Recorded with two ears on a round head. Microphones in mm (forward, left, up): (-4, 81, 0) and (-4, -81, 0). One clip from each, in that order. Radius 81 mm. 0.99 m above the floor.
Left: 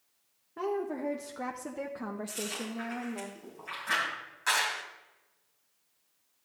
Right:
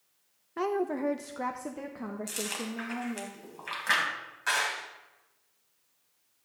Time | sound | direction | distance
0.6 | a woman speaking | 50° right (ahead or behind) | 0.6 m
2.3 | chewing | 60° right (ahead or behind) | 3.5 m
4.5 | a clap | 15° left (ahead or behind) | 2.0 m